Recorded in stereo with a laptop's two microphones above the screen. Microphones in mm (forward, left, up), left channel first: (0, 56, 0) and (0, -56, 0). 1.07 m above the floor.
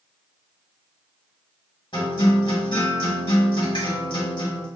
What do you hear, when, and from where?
1.9 s a guitar: 50° left (ahead or behind), 1.2 m